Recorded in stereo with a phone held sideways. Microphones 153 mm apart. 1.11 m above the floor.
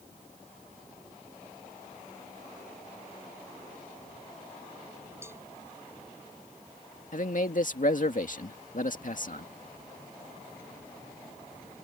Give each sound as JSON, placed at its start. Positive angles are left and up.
{"t": 5.2, "sound": "a cowbell", "side_deg": -15}
{"t": 7.1, "sound": "a man speaking", "side_deg": 60}